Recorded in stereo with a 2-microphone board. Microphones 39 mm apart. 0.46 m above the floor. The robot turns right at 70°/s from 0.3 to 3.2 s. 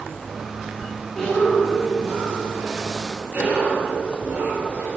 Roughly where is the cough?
Behind.